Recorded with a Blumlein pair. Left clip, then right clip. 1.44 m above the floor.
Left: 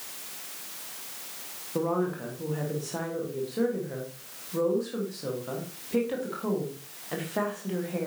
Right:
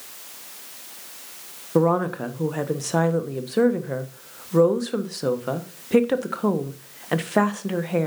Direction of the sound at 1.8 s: 30° right.